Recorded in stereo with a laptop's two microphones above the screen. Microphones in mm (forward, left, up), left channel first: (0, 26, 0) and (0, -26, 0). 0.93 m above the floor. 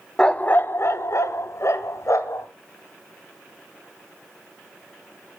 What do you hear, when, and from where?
0.2 s a dog barking: 15° left (ahead or behind), 0.8 m; by 2.5 s 70° left (ahead or behind), 2 m